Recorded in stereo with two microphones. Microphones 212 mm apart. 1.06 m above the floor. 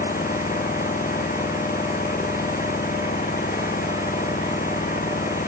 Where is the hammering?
No hammering in this recording.